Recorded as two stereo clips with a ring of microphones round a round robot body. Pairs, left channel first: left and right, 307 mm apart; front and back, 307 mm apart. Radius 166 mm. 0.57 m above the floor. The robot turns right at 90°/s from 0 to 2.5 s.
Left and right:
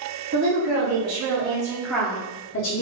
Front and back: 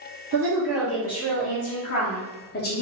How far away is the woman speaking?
About 0.9 m.